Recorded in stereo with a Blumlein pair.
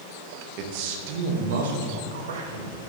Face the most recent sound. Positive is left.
turn(degrees=-65)